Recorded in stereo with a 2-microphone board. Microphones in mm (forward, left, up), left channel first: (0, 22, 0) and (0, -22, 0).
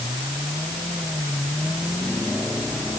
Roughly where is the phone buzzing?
I don't hear a phone buzzing.